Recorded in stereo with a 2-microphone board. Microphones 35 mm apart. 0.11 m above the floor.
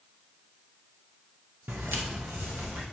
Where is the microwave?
I don't hear a microwave.